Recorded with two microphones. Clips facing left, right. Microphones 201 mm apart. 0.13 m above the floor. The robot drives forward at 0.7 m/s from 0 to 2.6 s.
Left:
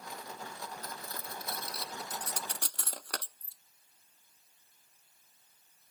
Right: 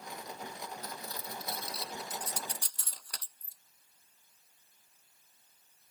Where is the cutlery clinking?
45° left (ahead or behind); by 3.6 s 65° left (ahead or behind).